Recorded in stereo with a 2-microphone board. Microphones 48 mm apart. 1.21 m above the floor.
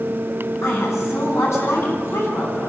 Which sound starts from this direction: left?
A woman speaking, at 0.6 s.